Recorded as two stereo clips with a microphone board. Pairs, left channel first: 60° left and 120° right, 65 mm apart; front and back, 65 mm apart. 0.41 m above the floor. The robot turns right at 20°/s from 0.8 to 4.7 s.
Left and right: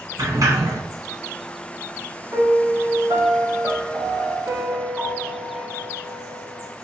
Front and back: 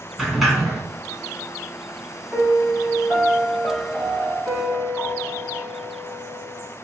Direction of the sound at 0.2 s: 95° right.